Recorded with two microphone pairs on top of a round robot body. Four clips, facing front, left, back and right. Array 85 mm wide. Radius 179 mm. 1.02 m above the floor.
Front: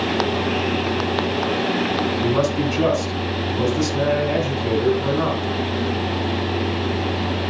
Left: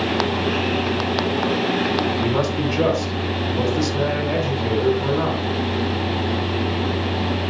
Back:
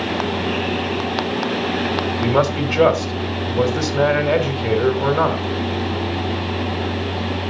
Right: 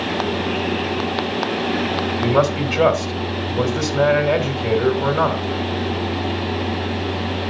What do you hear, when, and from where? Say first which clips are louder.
2.2 s a man speaking: right 3 dB, back 4 dB; 145° right, 2 m